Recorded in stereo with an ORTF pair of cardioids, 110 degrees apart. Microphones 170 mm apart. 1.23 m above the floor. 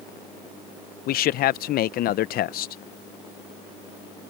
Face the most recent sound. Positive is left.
turn(degrees=65)